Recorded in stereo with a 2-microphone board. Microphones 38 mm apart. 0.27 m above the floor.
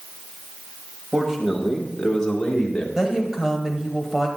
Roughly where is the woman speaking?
Centre.